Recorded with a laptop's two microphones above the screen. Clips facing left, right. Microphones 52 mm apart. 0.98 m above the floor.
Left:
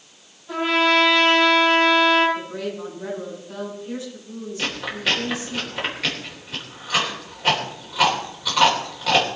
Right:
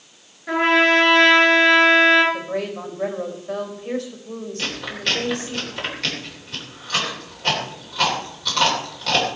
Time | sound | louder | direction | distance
0.5 | a trumpet | right 3 dB | 90° right | 4.5 m
2.3 | a woman speaking | right 3 dB | 70° right (ahead or behind) | 5 m
4.6 | chewing | left 3 dB | 10° left (ahead or behind) | 3.5 m